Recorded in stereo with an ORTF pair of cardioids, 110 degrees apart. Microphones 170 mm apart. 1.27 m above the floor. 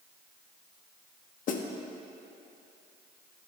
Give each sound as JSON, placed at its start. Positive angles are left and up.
{"t": 1.5, "sound": "a snare drum", "azimuth_deg": 55, "distance_m": 1.2}